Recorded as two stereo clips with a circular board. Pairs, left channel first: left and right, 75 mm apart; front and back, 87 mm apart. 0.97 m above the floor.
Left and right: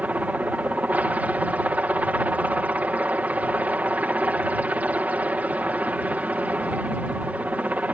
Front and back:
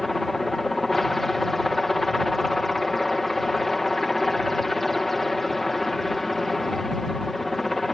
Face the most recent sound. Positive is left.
turn(degrees=-85)